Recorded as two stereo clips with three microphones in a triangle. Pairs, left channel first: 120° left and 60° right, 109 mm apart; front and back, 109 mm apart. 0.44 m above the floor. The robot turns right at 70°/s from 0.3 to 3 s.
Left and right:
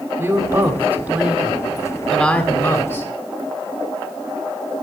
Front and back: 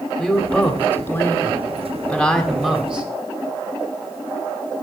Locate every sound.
0.2 s a woman speaking: 70° right, 1.1 m; by 3.1 s 120° left, 1.1 m